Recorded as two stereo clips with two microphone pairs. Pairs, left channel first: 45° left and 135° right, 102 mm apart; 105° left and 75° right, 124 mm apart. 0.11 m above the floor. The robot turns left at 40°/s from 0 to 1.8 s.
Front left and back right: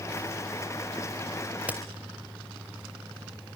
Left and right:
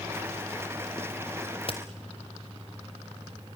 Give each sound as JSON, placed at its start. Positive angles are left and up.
{"t": 1.6, "sound": "a crack", "azimuth_deg": 150, "distance_m": 2.5}